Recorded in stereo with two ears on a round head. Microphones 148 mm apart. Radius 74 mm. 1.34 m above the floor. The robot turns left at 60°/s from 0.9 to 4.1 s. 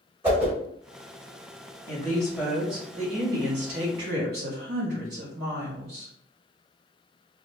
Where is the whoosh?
15° right (ahead or behind), 1.1 m.